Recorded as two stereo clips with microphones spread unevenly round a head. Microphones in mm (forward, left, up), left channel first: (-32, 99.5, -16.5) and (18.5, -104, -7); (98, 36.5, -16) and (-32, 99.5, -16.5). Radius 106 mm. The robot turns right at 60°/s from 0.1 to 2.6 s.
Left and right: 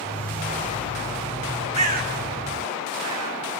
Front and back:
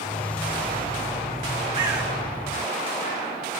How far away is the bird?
About 1.5 m.